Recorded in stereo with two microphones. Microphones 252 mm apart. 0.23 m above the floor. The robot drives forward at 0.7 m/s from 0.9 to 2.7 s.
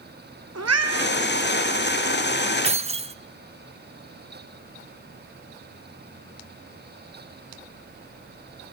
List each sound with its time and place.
0.6 s a cat meowing: 80° right, 1.5 m
2.6 s keys jangling: 25° right (ahead or behind), 0.7 m